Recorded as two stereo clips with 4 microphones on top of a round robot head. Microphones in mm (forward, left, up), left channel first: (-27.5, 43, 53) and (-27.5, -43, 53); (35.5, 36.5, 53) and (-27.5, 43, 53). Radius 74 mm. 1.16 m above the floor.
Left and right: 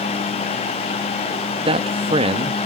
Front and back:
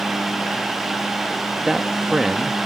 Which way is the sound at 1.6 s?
100° right.